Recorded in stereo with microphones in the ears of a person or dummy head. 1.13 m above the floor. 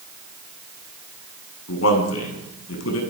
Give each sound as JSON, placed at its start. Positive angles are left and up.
{"t": 1.7, "sound": "a man speaking", "side_deg": 85, "distance_m": 8.5}